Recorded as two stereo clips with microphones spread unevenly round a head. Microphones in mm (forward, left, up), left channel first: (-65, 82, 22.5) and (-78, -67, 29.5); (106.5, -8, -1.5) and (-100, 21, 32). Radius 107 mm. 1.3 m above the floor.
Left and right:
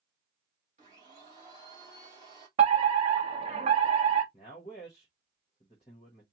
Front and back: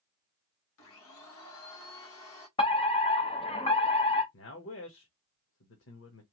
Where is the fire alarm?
55° right, 1.2 m.